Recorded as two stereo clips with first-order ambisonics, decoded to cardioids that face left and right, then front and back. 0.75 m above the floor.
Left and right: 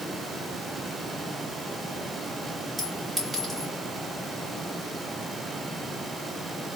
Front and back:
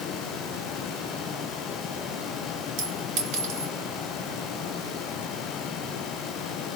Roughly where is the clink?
Behind.